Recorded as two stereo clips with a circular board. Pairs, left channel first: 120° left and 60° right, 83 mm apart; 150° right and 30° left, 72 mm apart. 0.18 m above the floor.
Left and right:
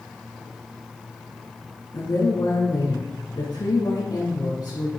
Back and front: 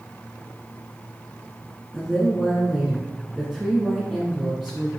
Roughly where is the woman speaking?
Behind left.